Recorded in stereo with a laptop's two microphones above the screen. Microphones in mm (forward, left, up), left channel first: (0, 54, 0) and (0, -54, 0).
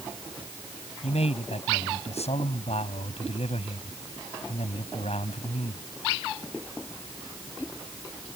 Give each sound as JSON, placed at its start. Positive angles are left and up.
{"t": 1.0, "sound": "a man speaking", "side_deg": 80}